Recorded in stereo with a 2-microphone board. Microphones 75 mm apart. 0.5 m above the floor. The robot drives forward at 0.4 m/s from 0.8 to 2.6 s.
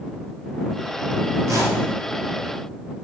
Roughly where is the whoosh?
Right.